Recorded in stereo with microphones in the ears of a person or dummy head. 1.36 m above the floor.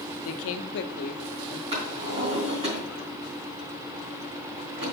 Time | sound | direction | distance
0.2 | a woman speaking | 85° left | 0.8 m
1.7 | a drawer | 30° right (ahead or behind) | 3.5 m